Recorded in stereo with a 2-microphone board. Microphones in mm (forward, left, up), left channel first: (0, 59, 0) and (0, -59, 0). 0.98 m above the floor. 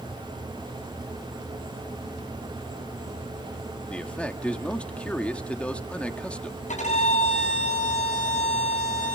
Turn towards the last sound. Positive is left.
turn(degrees=80)